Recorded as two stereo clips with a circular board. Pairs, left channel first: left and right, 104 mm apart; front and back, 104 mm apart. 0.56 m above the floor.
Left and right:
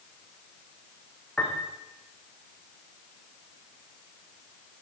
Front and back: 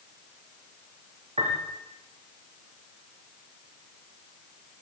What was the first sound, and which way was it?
A piano, 165° left.